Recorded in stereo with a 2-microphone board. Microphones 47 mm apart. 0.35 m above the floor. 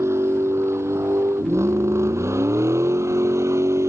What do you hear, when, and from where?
0.0 s a vehicle: 75° right (ahead or behind); by 3.9 s 85° right